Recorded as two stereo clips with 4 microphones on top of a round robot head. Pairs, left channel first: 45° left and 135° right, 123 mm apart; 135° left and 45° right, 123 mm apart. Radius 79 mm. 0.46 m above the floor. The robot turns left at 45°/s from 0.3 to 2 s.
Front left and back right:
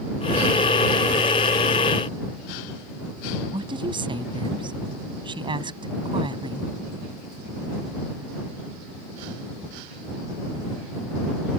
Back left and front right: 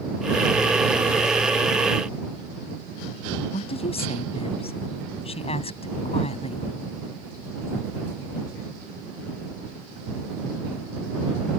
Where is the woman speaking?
175° left.